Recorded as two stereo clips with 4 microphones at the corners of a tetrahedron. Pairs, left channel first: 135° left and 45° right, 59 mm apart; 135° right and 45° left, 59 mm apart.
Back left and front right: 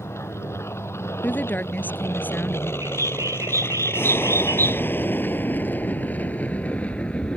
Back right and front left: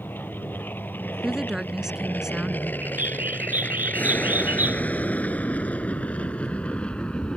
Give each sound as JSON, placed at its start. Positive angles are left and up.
{"t": 0.0, "sound": "an aircraft", "azimuth_deg": 170}
{"t": 1.2, "sound": "a woman speaking", "azimuth_deg": 120}
{"t": 2.8, "sound": "a bird", "azimuth_deg": -15}